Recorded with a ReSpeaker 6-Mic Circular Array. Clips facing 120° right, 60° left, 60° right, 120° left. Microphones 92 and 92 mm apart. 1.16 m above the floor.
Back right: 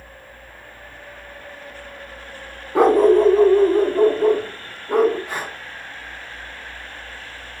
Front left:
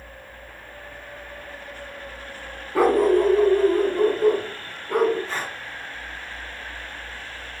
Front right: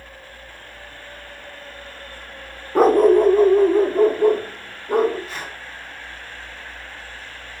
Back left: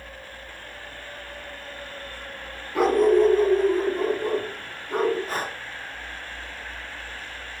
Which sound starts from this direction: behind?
Breathing, at 5.3 s.